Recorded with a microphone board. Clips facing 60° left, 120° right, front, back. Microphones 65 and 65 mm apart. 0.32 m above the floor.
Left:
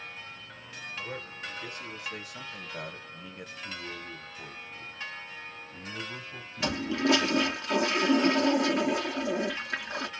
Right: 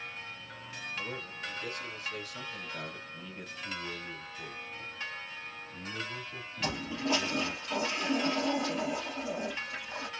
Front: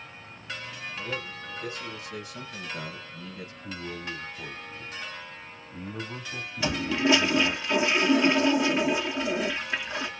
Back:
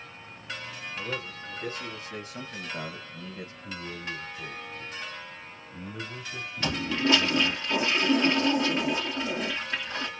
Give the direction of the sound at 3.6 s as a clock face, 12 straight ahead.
12 o'clock.